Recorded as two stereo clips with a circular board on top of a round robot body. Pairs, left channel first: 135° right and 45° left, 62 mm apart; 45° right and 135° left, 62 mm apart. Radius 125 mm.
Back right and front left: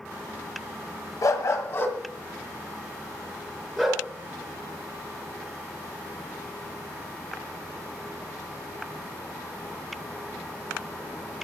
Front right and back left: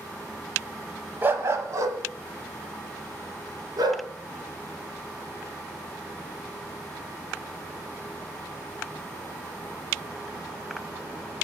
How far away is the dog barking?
About 1.5 m.